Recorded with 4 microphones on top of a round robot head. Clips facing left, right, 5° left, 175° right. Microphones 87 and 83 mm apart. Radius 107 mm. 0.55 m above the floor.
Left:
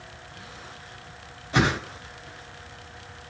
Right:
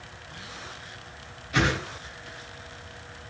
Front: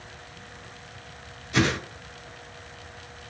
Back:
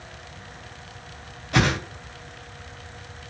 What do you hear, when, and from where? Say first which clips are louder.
1.5 s a whoosh: left 2 dB, back 2 dB; 150° left, 3 m